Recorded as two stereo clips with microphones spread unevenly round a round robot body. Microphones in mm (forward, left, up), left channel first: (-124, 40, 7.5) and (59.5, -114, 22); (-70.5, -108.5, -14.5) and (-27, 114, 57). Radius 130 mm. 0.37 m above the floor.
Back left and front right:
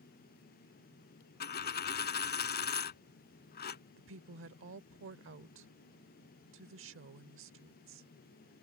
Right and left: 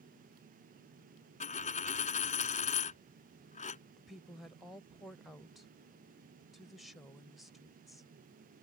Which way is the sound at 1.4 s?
165° right.